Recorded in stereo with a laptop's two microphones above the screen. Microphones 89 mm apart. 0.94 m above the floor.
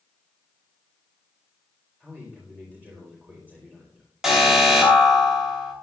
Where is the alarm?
5° right (ahead or behind), 3 m.